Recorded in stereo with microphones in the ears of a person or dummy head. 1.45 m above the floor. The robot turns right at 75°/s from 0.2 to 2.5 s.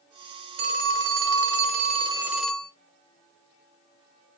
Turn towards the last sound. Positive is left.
turn(degrees=5)